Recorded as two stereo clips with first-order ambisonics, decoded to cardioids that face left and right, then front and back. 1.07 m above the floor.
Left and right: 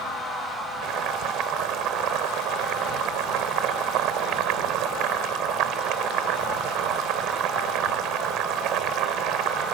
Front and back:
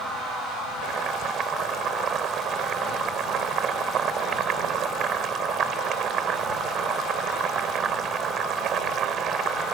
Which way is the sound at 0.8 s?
125° right.